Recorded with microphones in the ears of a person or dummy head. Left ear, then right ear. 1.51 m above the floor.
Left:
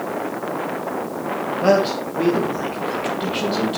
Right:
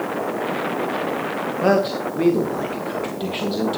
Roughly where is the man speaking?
Centre.